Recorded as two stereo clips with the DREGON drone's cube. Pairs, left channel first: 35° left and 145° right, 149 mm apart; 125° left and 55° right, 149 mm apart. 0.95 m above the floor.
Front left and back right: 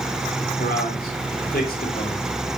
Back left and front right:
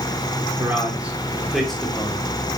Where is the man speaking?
20° left, 3 m; by 2.6 s 45° left, 3 m.